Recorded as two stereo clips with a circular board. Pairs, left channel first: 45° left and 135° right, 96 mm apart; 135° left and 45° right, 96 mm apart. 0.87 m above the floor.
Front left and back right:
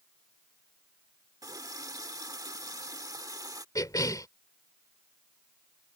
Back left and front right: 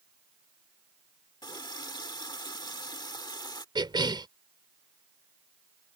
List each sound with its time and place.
1.4 s a running tap: 175° left
3.8 s a cough: 5° right